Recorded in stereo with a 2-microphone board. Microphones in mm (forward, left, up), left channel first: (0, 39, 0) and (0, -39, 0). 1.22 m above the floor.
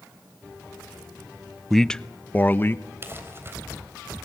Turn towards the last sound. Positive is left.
turn(degrees=-30)  # may be behind; listen again after turning